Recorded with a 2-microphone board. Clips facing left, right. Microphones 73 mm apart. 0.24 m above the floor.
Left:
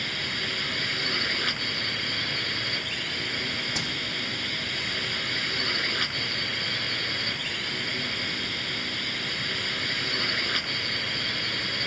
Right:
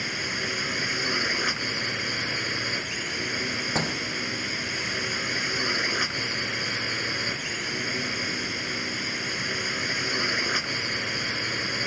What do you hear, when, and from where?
0.0 s a drone: 15° right (ahead or behind)
3.8 s a door slam: 40° right (ahead or behind)